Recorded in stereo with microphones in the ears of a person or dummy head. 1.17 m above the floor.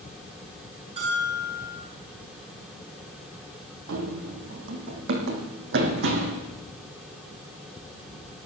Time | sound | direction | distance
1.0 | a bell | 40° right (ahead or behind) | 8 m
3.9 | running footsteps | 60° right (ahead or behind) | 2 m